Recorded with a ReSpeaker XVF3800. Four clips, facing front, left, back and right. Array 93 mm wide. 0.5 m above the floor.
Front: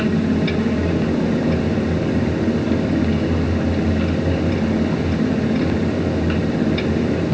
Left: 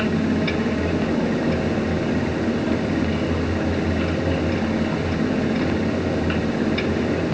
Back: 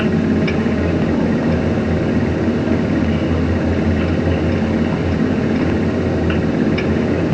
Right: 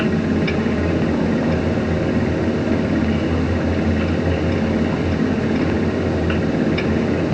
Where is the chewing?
No chewing in this recording.